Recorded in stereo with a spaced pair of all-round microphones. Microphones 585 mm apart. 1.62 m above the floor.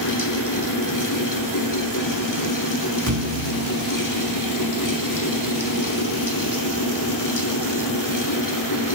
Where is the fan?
30° left (ahead or behind), 2 m.